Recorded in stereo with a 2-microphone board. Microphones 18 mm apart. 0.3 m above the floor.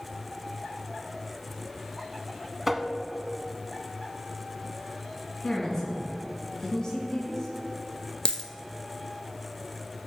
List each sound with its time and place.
2.7 s tapping: 10° right (ahead or behind), 0.7 m
5.4 s a woman speaking: 40° left (ahead or behind), 3 m
8.2 s a dropped coin: 60° left (ahead or behind), 0.7 m